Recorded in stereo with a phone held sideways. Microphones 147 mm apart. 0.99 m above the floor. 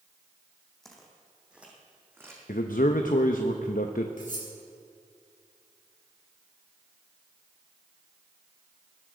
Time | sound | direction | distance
0.8 | footsteps | 5° left (ahead or behind) | 2.5 m
2.5 | a man speaking | 80° left | 0.7 m
4.2 | cutlery clinking | 70° left (ahead or behind) | 3.5 m